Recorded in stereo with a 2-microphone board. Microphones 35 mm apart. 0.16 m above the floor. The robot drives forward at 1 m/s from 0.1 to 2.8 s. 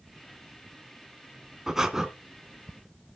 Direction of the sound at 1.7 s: 15° right (ahead or behind).